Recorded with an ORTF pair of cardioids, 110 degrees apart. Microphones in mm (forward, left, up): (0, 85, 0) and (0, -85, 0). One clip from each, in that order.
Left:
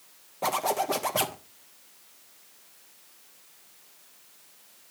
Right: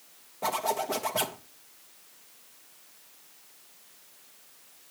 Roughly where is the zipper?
Ahead.